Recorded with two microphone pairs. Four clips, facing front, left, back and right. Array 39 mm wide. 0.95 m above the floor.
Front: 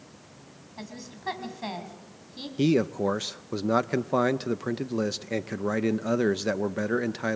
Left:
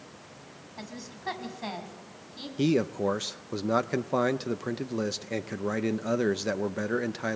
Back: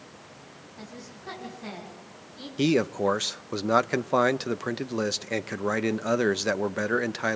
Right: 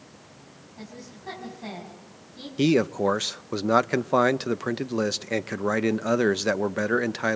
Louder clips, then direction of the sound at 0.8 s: Left 1 dB, front 3 dB; 45° left.